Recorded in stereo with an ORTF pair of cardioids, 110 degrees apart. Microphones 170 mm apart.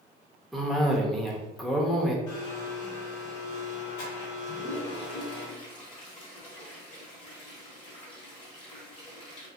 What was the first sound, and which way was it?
A cough, straight ahead.